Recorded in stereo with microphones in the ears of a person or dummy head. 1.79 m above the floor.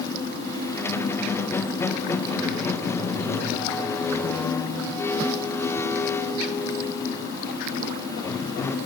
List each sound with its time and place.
0.8 s a squeak: 15° left (ahead or behind), 1.4 m